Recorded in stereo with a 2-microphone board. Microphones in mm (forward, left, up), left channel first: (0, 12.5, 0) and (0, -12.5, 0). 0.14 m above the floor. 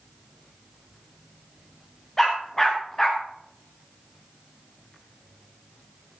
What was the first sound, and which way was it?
A dog barking, 15° left (ahead or behind).